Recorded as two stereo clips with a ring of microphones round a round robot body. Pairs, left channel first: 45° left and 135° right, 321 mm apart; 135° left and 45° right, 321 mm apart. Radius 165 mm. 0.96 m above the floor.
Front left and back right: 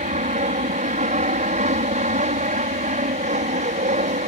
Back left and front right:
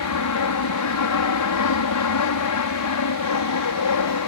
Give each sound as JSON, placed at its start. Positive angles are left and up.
{"t": 0.0, "sound": "an aircraft", "azimuth_deg": 160}